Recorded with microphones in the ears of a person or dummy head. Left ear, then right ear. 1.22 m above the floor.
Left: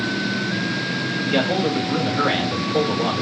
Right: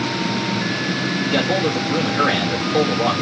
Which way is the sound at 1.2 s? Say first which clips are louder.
Right 1 dB; 15° right (ahead or behind).